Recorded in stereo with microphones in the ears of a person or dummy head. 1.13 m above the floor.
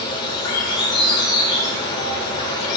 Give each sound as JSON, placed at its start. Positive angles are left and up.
{"t": 0.0, "sound": "an insect", "side_deg": 25, "distance_m": 1.7}